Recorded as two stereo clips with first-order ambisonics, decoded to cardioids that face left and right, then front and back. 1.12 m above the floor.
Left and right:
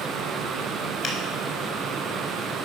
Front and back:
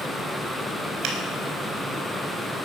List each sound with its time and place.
1.0 s a finger snap: 140° left, 4.5 m